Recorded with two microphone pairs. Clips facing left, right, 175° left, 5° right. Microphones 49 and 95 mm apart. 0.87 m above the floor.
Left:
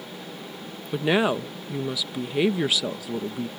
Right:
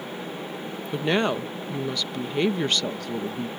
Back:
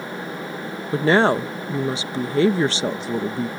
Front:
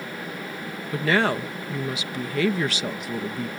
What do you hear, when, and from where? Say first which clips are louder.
0.9 s a woman speaking: left 2 dB, back 6 dB; 165° left